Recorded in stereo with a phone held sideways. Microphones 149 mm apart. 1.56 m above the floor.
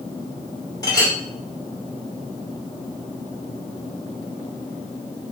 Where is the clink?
25° left (ahead or behind), 3.5 m.